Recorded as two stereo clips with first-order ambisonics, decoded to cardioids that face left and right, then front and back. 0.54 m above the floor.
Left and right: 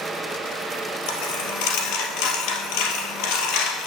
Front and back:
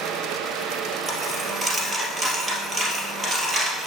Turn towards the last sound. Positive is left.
turn(degrees=105)